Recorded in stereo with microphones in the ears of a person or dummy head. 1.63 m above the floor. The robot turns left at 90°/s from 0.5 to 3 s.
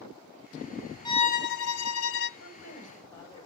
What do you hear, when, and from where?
1.1 s a violin: 160° left, 0.5 m; by 2.3 s 45° left, 0.5 m
2.4 s a woman speaking: 75° left, 4.5 m; by 3.5 s 20° left, 4.5 m